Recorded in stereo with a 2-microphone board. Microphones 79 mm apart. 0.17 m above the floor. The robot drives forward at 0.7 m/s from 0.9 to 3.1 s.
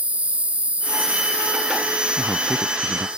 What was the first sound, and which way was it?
An insect, 15° right (ahead or behind).